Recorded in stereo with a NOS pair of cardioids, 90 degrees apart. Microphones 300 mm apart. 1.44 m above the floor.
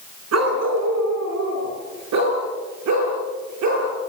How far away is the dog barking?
About 5 m.